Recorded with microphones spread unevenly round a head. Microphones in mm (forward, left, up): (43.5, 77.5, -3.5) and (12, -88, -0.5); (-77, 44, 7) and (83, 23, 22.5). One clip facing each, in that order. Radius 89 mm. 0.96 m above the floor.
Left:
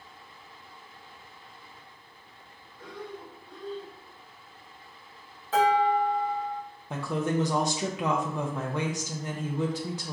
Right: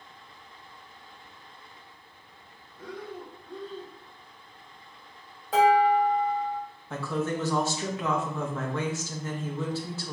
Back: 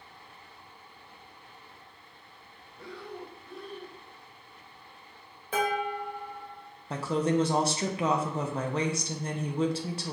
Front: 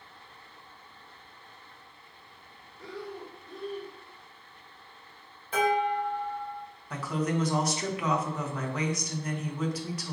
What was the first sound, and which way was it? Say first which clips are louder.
Breathing: right 2 dB, front 2 dB; 170° right.